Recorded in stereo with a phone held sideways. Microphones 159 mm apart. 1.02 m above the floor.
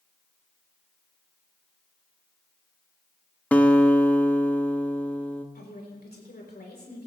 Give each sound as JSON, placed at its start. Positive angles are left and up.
{"t": 3.5, "sound": "a guitar", "side_deg": 10, "distance_m": 0.7}
{"t": 5.5, "sound": "a woman speaking", "side_deg": 80, "distance_m": 3.5}